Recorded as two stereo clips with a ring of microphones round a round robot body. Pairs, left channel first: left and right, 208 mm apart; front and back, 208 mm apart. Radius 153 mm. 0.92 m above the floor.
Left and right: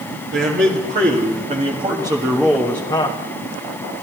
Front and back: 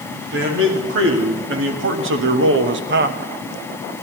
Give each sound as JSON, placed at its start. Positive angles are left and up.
{"t": 0.3, "sound": "a man speaking", "azimuth_deg": -140, "distance_m": 2.5}